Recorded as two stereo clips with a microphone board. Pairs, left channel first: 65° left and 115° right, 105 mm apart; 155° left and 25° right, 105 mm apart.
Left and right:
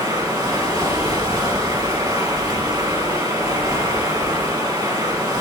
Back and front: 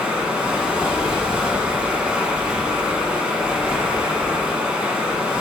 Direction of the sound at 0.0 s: 100° right.